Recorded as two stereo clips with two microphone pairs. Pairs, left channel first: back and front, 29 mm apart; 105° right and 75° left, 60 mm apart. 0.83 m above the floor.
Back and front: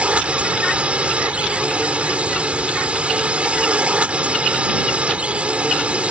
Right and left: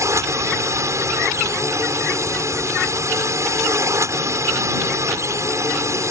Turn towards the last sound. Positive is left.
turn(degrees=45)